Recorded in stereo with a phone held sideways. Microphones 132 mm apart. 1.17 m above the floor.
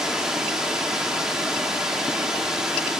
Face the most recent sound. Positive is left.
turn(degrees=-5)  # may be behind; listen again after turning